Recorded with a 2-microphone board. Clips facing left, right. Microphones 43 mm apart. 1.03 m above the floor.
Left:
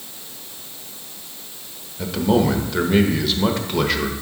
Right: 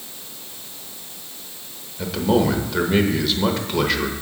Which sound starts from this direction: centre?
A man speaking, at 2.0 s.